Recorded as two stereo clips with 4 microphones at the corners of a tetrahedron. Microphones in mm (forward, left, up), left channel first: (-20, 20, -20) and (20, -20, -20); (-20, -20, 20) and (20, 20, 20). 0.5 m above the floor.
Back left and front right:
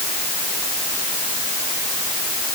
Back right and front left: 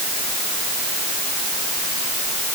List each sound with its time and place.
Only background noise.